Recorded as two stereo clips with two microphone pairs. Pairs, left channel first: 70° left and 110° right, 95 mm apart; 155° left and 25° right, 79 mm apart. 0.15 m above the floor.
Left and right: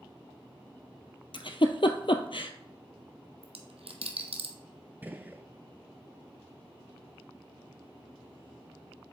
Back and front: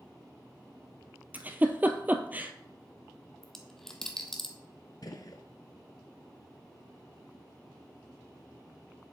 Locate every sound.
1.3 s a giggle: 45° left, 0.7 m
3.4 s a dropped coin: 120° right, 0.8 m
5.0 s a gunshot: straight behind, 0.6 m